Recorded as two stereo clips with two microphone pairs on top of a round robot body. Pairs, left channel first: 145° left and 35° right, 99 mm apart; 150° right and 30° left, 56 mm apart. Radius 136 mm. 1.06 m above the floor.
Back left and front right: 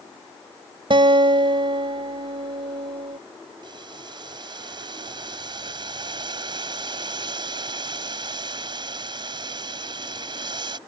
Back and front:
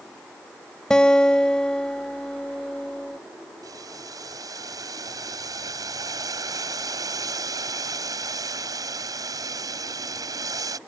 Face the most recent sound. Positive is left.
turn(degrees=10)